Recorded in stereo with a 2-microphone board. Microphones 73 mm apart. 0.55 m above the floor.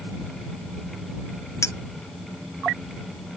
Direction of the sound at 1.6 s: 45° left (ahead or behind).